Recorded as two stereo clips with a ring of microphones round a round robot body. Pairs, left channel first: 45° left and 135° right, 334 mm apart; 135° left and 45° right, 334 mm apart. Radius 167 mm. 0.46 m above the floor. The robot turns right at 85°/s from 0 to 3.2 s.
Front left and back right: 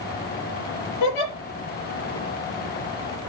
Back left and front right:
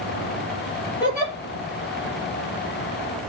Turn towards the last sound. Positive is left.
turn(degrees=-120)